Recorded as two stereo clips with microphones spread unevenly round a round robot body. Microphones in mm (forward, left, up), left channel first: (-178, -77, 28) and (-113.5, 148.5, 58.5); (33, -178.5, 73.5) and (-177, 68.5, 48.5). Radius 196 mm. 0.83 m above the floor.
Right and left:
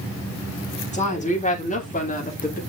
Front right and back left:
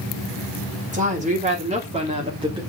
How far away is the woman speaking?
About 3 m.